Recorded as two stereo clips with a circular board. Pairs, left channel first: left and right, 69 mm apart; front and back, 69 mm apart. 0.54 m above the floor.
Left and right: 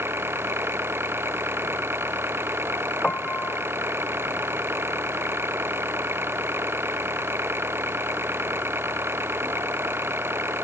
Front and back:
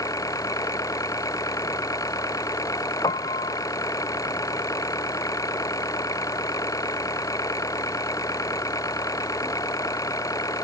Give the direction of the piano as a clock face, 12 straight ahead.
12 o'clock.